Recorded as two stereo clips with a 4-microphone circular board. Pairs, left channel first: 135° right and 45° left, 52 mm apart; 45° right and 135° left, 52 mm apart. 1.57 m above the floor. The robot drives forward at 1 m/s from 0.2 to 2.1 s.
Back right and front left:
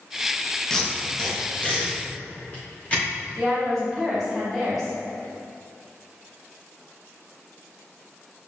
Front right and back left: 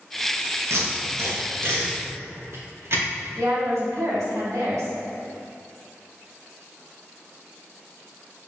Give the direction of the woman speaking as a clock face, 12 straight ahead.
7 o'clock.